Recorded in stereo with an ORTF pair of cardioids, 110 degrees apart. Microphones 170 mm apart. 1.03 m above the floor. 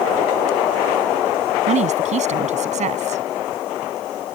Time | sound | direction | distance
1.7 | a woman speaking | 45° right | ?